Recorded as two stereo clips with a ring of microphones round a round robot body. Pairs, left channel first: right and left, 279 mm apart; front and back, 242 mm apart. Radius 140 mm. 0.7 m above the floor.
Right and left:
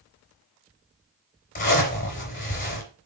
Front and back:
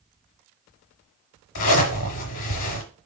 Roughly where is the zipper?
Ahead right.